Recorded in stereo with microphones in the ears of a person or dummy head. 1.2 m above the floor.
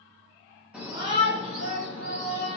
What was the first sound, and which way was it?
A shout, 5° right (ahead or behind).